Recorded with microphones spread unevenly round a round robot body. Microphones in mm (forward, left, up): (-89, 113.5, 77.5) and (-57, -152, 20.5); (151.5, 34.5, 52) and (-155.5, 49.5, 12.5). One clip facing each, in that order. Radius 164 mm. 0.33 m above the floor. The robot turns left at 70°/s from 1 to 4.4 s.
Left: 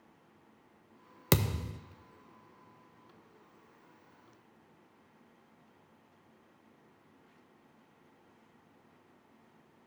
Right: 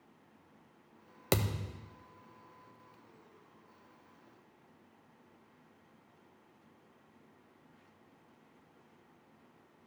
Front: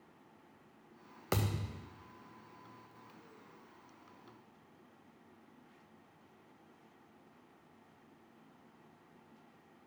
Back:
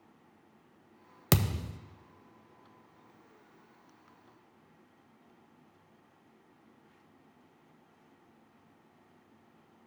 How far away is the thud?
About 0.5 m.